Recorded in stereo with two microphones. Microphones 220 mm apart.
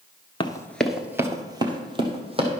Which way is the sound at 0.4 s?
20° left (ahead or behind).